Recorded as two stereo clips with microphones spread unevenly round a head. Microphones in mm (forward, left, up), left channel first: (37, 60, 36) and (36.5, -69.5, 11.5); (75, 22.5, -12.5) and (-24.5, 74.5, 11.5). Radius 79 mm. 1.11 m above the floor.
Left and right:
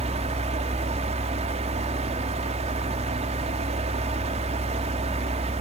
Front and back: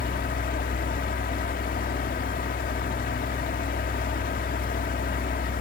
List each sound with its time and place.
0.0 s a fan: 50° right, 1.3 m